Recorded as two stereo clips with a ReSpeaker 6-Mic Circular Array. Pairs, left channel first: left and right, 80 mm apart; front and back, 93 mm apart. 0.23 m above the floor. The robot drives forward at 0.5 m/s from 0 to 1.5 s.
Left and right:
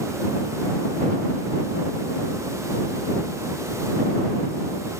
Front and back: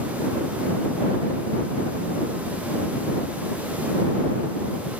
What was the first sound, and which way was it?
Only background noise.